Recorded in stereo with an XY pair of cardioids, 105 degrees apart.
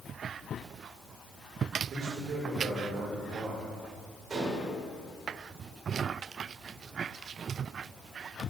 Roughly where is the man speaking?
Ahead right.